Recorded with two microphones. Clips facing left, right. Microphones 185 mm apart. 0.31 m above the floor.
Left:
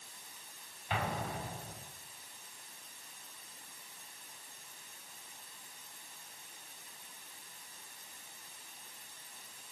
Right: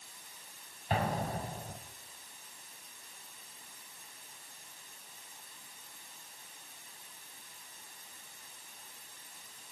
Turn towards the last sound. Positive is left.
turn(degrees=-40)  # may be behind; listen again after turning